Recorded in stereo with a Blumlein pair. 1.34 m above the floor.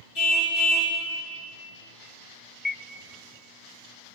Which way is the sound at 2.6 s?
10° left.